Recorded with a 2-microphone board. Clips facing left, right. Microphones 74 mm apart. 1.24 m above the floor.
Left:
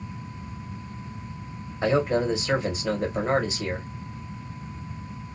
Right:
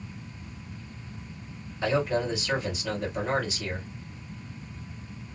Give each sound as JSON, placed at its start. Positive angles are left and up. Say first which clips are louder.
{"t": 1.8, "sound": "a man speaking", "louder": "left 4 dB", "side_deg": 25, "distance_m": 1.5}